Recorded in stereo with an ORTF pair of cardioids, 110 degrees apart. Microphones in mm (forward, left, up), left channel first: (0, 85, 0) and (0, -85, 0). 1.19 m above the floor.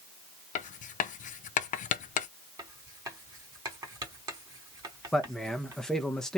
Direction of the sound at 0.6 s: 50° left.